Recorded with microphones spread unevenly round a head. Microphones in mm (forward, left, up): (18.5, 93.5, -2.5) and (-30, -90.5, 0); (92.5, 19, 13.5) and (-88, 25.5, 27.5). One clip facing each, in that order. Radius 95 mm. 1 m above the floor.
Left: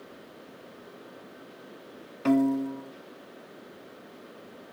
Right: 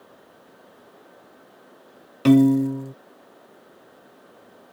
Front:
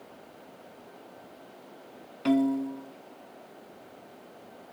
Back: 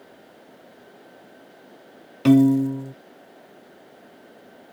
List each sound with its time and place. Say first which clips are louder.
2.2 s a piano: right 8 dB, back 10 dB; 145° right